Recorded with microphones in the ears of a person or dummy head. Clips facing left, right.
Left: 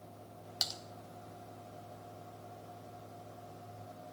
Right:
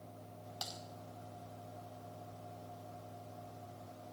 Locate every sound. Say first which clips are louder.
0.6 s typing on a keyboard: left 1 dB; 25° left (ahead or behind), 1.1 m